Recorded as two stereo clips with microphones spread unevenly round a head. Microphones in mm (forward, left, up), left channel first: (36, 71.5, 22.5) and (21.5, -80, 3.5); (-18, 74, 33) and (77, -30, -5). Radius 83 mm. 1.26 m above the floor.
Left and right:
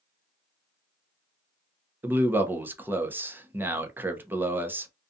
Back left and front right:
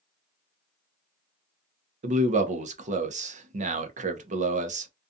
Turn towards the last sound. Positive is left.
turn(degrees=-20)